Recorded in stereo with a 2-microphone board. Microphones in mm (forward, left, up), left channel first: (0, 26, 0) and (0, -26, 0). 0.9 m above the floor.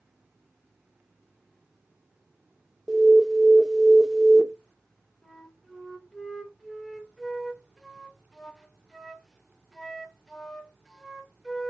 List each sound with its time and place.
2.9 s an alarm: 5° right (ahead or behind), 0.6 m
5.2 s a flute: 5° left (ahead or behind), 0.6 m